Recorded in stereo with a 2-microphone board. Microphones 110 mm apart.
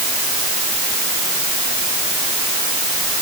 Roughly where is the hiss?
No hiss in this recording.